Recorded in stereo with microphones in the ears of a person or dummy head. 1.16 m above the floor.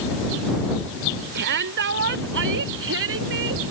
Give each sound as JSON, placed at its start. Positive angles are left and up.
{"t": 1.4, "sound": "a shout", "side_deg": -55}